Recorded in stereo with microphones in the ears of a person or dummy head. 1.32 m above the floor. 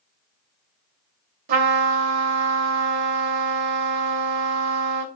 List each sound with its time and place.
1.5 s a trumpet: 55° right (ahead or behind), 3 m